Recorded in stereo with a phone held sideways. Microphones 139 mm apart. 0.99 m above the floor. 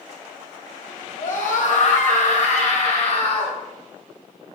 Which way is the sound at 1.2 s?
70° left (ahead or behind).